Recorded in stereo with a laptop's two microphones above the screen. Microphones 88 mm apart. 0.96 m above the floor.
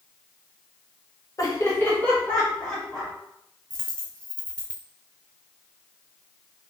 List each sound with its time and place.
1.4 s laughter: 45° left (ahead or behind), 0.6 m; by 3.1 s 5° left (ahead or behind), 1.9 m
3.7 s a dropped coin: 10° left (ahead or behind), 0.9 m